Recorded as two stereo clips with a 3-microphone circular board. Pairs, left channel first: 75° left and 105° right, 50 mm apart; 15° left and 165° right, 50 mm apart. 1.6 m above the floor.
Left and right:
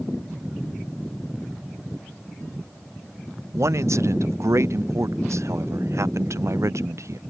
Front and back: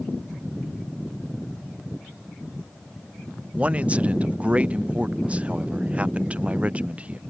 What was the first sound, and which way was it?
A man speaking, 105° right.